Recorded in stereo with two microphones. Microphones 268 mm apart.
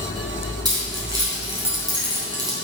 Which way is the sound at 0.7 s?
15° right (ahead or behind).